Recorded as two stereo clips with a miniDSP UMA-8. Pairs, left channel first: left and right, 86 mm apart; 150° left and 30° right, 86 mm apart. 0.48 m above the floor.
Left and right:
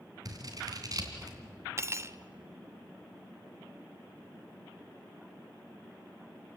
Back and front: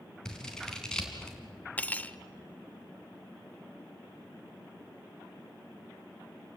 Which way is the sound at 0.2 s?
130° right.